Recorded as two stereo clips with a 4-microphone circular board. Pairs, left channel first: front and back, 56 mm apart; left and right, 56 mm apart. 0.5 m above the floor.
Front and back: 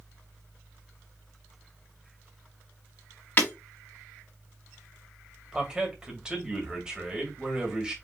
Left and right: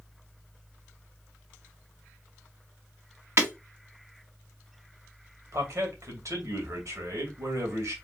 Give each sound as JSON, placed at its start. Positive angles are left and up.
{"t": 3.4, "sound": "breaking glass", "azimuth_deg": -50, "distance_m": 2.5}
{"t": 5.5, "sound": "a man speaking", "azimuth_deg": -105, "distance_m": 2.0}